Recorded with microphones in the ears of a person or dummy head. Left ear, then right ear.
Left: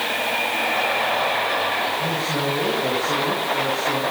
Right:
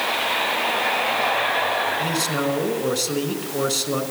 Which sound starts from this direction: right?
A man speaking, at 2.0 s.